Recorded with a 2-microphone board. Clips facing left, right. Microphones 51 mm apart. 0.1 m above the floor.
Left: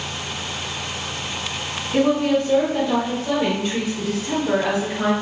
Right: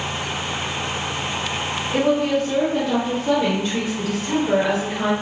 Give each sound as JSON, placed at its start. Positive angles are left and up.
{"t": 1.9, "sound": "a woman speaking", "side_deg": 0, "distance_m": 1.7}